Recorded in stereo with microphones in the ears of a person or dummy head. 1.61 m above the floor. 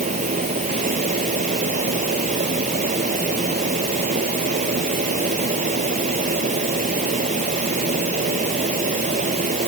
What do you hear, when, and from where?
0.0 s a fan: 40° right (ahead or behind)